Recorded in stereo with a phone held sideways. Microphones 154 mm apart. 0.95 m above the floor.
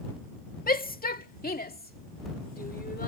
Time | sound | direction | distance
0.7 | a shout | 70° left (ahead or behind) | ?